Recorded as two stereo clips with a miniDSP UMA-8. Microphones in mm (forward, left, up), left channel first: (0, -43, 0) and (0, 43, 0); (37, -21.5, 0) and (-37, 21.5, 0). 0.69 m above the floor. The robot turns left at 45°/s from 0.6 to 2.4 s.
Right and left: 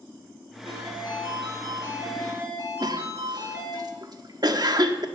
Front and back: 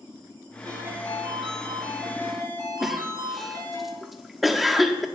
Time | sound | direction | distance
0.7 | a ringtone | 105° left | 7.5 m
2.8 | a cough | 60° left | 1.2 m